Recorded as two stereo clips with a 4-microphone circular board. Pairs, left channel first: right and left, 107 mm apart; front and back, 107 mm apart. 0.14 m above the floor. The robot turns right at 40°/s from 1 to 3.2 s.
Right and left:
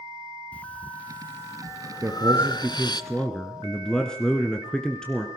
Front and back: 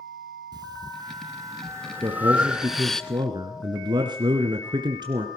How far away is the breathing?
About 0.6 m.